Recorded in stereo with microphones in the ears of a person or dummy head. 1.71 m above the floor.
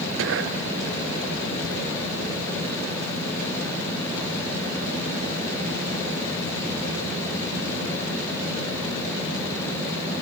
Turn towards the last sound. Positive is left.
turn(degrees=-80)